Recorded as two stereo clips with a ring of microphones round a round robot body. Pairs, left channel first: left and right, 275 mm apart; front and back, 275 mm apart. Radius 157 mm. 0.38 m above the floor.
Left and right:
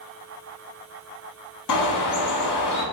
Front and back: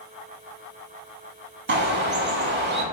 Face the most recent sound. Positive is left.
turn(degrees=125)